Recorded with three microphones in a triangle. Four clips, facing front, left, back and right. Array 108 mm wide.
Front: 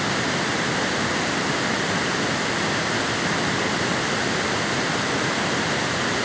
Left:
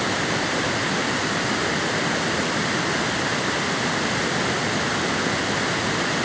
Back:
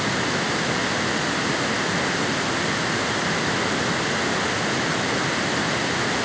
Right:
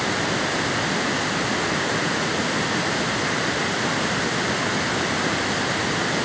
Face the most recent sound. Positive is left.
No sound to turn to.